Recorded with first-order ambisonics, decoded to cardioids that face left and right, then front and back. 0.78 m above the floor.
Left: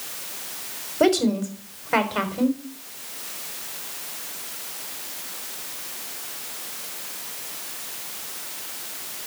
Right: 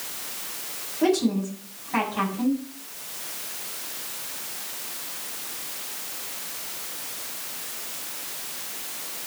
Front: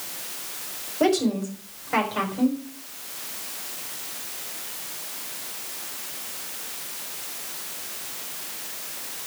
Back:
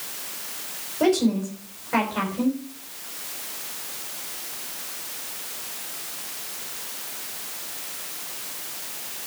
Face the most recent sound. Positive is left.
turn(degrees=85)